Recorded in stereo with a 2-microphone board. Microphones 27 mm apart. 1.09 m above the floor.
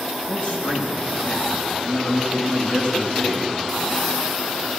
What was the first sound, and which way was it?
A man speaking, 60° left (ahead or behind).